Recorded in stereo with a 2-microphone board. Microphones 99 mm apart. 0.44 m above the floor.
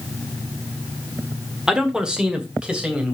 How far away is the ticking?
No ticking in this recording.